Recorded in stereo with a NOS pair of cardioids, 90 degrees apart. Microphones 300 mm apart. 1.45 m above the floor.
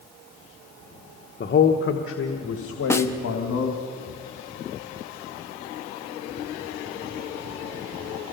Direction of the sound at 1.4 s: 35° left.